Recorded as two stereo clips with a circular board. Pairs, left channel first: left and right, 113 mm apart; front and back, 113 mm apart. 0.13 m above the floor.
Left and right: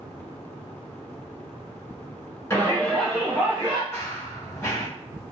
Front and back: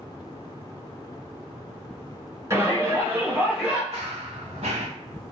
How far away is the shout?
About 1.3 m.